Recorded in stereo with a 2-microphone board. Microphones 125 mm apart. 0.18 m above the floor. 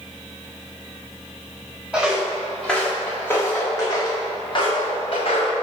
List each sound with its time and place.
1.9 s footsteps: 5° right (ahead or behind), 2.0 m; by 5.5 s 55° left (ahead or behind), 2.5 m